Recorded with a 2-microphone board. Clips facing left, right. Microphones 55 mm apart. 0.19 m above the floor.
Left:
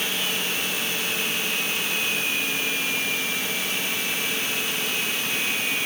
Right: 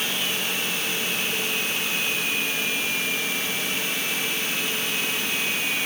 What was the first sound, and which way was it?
Only background noise.